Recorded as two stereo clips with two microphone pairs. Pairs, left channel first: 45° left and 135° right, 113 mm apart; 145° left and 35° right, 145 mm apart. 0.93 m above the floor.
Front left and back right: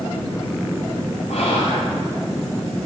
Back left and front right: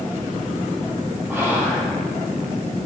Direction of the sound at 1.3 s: 55° left.